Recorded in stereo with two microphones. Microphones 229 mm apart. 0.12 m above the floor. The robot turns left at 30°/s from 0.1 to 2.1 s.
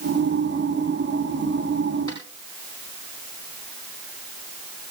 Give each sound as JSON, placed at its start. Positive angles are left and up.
{"t": 2.1, "sound": "a snare drum", "side_deg": 15, "distance_m": 9.0}